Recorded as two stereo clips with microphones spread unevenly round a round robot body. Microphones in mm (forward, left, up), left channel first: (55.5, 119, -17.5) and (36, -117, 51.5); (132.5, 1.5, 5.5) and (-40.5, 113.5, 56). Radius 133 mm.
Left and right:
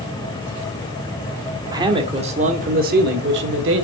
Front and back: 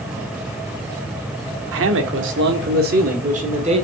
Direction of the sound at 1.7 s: Straight behind.